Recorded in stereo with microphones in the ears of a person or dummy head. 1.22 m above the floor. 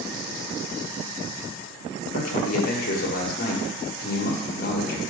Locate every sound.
2.1 s a man speaking: 55° left (ahead or behind), 0.9 m